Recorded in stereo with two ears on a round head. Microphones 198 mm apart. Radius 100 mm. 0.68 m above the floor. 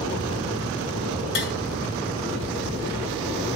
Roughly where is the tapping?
Left.